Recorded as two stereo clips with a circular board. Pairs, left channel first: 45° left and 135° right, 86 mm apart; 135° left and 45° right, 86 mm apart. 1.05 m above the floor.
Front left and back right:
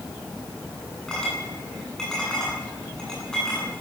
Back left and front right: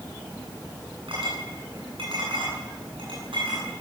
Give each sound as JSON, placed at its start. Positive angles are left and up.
{"t": 1.1, "sound": "a clink", "azimuth_deg": -40, "distance_m": 8.5}